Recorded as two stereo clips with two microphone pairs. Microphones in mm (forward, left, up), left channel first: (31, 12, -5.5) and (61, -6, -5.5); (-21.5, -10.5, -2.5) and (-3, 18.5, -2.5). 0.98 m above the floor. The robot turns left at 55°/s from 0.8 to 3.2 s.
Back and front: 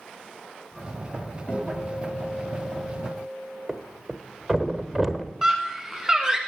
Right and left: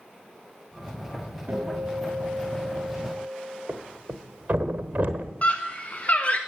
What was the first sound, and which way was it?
A guitar, 85° left.